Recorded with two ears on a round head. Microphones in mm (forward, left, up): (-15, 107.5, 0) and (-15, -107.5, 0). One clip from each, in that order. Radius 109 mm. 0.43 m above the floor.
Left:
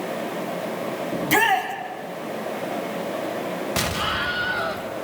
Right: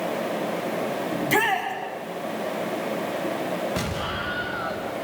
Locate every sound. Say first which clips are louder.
1.1 s a shout: left 4 dB; 15° left (ahead or behind), 3.5 m
3.8 s an explosion: left 5 dB; 40° left (ahead or behind), 2.5 m